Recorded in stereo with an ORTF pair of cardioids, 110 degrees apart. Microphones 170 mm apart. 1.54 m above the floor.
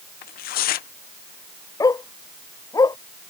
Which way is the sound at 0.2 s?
70° left.